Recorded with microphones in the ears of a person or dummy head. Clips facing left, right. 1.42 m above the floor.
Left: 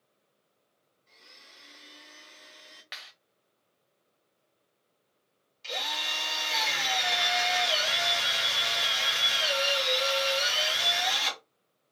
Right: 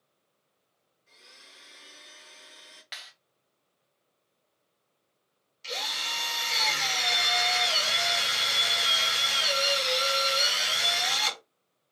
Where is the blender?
10° right (ahead or behind), 0.6 m.